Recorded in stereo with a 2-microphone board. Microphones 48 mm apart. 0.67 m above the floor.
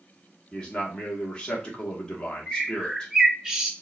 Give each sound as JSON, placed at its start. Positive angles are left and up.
{"t": 0.5, "sound": "a man speaking", "side_deg": 20, "distance_m": 1.0}
{"t": 2.5, "sound": "a bird", "side_deg": -15, "distance_m": 0.7}